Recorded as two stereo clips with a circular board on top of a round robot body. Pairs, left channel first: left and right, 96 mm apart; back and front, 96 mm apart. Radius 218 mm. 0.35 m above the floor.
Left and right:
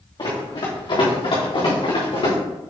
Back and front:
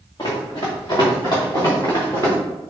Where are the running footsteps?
135° left, 2.5 m; by 2.4 s 120° left, 4 m.